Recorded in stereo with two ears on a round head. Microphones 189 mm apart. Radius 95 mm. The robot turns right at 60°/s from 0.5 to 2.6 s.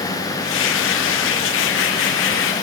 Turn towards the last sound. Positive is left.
No sound to turn to.